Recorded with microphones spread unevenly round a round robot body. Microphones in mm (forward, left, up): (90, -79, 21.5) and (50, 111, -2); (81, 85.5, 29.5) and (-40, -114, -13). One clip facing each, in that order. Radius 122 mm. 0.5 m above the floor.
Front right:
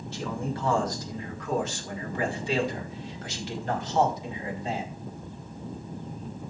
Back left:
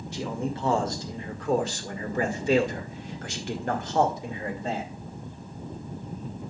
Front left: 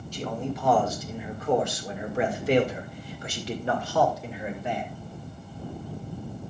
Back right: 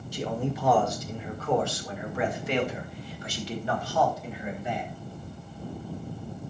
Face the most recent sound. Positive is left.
turn(degrees=80)